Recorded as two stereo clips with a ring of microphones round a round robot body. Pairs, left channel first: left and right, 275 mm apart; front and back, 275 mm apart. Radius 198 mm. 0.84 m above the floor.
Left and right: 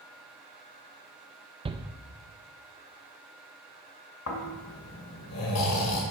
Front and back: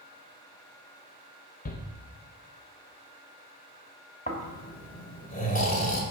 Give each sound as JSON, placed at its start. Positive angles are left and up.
{"t": 1.6, "sound": "a shout", "azimuth_deg": -30, "distance_m": 0.6}
{"t": 4.3, "sound": "snoring", "azimuth_deg": 60, "distance_m": 2.0}